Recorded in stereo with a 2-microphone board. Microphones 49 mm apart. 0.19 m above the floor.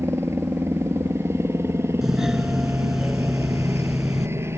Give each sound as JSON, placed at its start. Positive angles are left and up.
{"t": 0.0, "sound": "a helicopter", "side_deg": -65}
{"t": 2.0, "sound": "a doorbell", "side_deg": -10}